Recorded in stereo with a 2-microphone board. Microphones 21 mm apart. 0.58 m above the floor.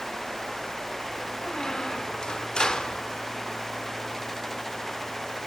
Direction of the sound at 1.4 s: 35° left (ahead or behind).